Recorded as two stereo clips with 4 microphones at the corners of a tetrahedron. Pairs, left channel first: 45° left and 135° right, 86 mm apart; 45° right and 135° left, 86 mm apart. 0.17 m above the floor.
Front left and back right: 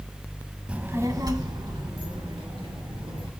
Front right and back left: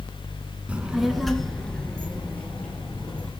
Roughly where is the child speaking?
Behind.